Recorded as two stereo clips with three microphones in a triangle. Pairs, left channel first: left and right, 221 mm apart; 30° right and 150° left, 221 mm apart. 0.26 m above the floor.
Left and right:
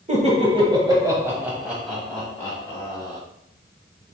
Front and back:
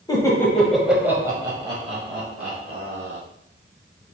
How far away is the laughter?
About 1.2 m.